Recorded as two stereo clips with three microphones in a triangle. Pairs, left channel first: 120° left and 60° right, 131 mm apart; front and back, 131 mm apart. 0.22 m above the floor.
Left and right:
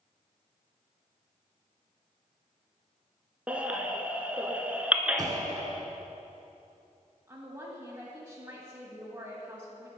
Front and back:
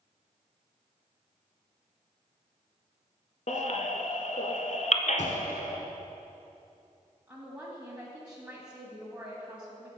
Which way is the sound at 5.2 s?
Straight ahead.